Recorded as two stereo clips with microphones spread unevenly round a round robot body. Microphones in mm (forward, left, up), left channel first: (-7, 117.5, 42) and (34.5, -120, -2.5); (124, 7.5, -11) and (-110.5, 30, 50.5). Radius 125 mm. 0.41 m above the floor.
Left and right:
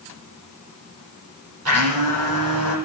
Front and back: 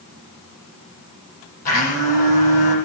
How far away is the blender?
About 7.5 m.